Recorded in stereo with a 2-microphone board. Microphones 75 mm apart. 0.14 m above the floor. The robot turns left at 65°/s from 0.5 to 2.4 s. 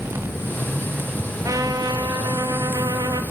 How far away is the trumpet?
About 1.2 m.